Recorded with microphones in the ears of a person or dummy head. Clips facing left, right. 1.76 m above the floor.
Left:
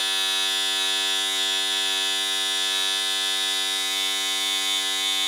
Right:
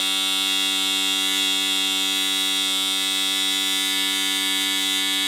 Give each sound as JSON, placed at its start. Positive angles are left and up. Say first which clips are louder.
{"t": 0.0, "sound": "a machine running", "louder": "right 3 dB", "side_deg": -35, "distance_m": 1.1}